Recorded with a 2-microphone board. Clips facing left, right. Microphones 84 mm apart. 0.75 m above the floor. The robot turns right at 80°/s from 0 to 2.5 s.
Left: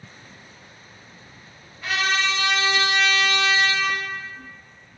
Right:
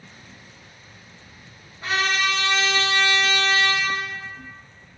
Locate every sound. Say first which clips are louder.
1.8 s a trumpet: even; 155° right, 1.4 m; by 4.0 s 100° right, 1.4 m